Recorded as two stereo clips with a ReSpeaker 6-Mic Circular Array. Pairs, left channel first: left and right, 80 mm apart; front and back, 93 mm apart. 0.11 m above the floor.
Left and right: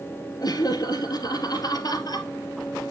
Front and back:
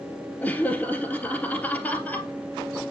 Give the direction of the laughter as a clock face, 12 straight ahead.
10 o'clock.